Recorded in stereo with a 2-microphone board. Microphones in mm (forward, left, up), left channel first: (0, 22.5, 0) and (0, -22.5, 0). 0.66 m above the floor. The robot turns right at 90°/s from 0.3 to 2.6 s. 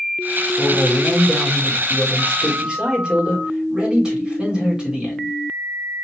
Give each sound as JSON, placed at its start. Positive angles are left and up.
{"t": 0.6, "sound": "a man speaking", "azimuth_deg": 160, "distance_m": 2.0}